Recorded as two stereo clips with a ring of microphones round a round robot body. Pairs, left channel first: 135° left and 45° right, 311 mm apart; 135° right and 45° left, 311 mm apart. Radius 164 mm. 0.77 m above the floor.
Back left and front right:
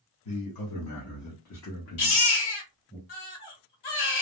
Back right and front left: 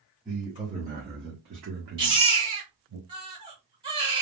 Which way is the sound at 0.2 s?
125° left.